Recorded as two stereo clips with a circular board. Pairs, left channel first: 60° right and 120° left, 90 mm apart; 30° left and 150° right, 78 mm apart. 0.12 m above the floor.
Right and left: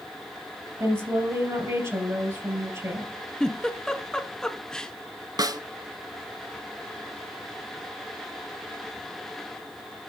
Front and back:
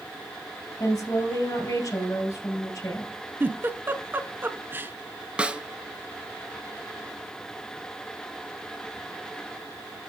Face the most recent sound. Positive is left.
turn(degrees=140)